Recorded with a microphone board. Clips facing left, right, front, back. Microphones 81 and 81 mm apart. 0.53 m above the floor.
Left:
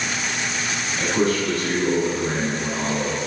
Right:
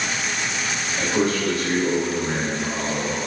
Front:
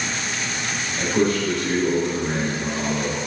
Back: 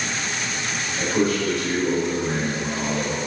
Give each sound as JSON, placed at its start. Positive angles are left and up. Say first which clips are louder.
{"t": 1.0, "sound": "a man speaking", "louder": "left 1 dB, front 1 dB", "azimuth_deg": -110, "distance_m": 1.3}